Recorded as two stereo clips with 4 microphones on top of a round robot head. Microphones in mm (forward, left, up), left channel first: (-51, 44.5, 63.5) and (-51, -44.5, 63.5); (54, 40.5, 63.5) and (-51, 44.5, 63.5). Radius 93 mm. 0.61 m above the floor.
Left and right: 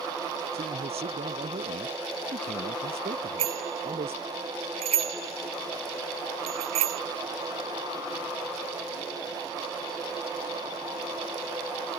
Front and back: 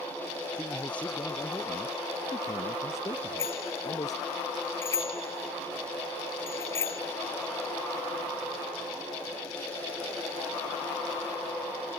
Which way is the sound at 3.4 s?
75° right.